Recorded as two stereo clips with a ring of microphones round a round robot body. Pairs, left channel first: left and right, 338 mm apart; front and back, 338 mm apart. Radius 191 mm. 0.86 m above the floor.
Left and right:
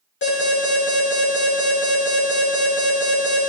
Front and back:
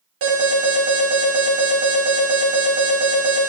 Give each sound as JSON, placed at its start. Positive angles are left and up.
{"t": 0.2, "sound": "an alarm", "azimuth_deg": 150, "distance_m": 3.0}